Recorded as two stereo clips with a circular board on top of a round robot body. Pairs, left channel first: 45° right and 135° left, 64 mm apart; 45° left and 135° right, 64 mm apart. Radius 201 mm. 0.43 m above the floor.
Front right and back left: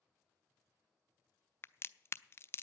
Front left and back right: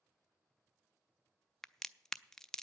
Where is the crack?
35° right, 0.6 m.